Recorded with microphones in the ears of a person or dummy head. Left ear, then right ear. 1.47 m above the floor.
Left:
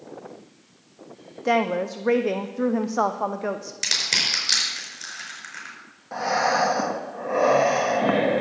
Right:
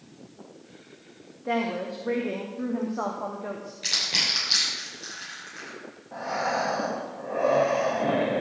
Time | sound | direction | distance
1.4 | a woman speaking | 80° left | 0.5 m
3.8 | crushing | 70° left (ahead or behind) | 4.5 m
6.1 | breathing | 65° left (ahead or behind) | 1.2 m